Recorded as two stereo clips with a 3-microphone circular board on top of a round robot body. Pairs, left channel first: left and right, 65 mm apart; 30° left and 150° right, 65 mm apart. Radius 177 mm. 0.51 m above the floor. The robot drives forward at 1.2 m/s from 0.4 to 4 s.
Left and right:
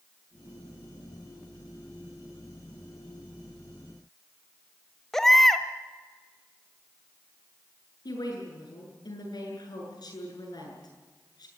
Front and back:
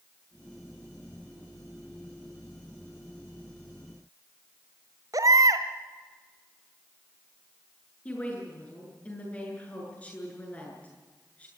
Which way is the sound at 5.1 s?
175° left.